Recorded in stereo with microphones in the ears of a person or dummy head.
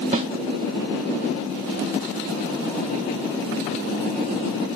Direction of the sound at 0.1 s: 25° right (ahead or behind).